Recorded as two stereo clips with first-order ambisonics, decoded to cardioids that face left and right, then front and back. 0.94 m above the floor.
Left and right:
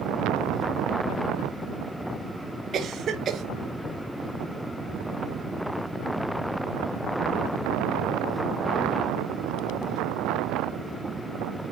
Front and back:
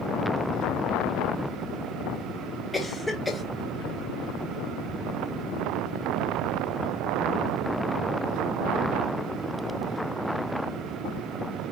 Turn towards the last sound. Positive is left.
turn(degrees=-75)